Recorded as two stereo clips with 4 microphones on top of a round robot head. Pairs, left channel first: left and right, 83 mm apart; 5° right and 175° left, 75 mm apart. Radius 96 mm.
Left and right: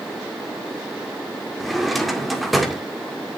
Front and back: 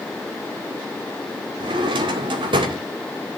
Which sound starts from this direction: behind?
A drawer, at 1.6 s.